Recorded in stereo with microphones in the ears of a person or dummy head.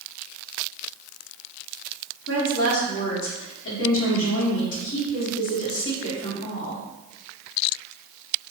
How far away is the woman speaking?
About 1.6 m.